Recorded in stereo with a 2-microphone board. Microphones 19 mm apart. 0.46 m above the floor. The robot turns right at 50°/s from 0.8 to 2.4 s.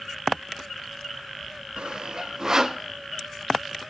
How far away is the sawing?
About 0.6 m.